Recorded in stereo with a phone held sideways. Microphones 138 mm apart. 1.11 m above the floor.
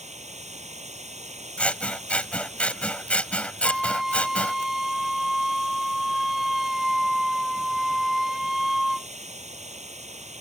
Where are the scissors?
10° left (ahead or behind).